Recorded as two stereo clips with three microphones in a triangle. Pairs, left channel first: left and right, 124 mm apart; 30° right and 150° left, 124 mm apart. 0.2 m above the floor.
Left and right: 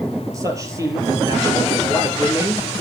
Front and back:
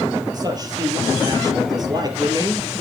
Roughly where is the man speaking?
Behind right.